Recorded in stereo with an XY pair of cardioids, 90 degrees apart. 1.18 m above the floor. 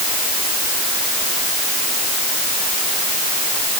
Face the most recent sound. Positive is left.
No sound to turn to.